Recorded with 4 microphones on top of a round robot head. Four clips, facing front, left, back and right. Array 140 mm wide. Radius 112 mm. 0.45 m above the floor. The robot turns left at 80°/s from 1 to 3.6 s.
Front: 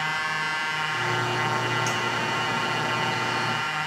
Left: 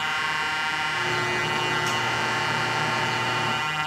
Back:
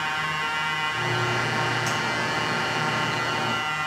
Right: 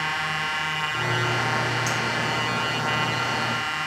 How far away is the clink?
About 3.5 m.